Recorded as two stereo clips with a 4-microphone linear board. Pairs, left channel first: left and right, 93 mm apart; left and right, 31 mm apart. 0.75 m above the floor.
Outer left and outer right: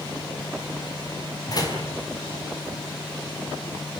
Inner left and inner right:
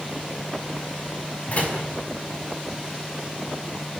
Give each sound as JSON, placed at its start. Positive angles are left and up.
{"t": 1.5, "sound": "a door slam", "side_deg": 45, "distance_m": 5.0}